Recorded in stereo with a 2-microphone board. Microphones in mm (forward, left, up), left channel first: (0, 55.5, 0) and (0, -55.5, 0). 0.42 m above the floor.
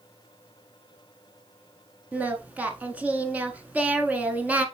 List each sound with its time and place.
2.1 s singing: 15° right (ahead or behind), 1.0 m